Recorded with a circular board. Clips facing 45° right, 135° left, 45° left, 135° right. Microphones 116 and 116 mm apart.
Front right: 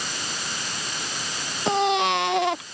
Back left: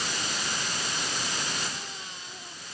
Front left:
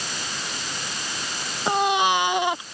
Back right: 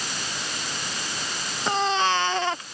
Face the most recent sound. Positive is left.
turn(degrees=-30)